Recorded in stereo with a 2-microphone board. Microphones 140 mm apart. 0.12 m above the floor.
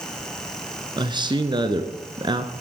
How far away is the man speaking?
About 1.3 m.